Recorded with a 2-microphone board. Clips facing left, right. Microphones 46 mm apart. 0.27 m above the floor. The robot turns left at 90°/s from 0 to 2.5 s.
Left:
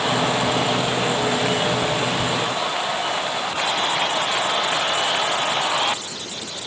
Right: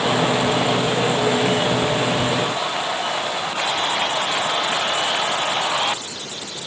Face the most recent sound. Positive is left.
No sound to turn to.